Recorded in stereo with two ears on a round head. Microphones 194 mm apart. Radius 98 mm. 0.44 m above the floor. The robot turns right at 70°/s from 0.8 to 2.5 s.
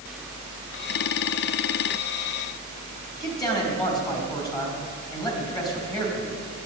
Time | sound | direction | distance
3.2 | a man speaking | 20° left (ahead or behind) | 4 m